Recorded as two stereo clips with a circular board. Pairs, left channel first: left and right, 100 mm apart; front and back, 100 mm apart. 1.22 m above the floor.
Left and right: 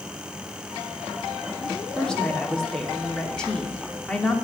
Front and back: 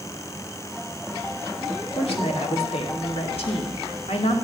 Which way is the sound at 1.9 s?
5° left.